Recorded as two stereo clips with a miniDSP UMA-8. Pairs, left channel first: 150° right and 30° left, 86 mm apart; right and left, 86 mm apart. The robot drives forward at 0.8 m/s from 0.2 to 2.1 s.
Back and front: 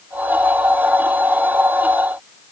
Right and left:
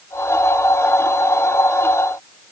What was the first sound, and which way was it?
Only background noise.